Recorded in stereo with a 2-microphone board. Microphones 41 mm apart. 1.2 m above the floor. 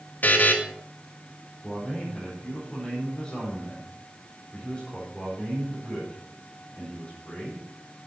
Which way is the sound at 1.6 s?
30° left (ahead or behind).